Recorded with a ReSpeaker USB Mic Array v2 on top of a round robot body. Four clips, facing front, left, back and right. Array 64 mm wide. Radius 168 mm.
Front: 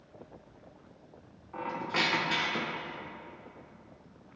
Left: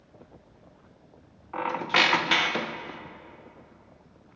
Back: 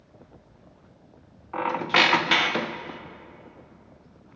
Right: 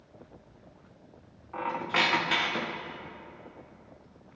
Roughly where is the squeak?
Behind left.